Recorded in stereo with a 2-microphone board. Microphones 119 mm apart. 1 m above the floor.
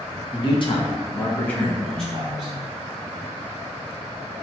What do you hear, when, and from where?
0.3 s a man speaking: 50° left (ahead or behind), 0.9 m; by 2.5 s 5° right (ahead or behind), 1.5 m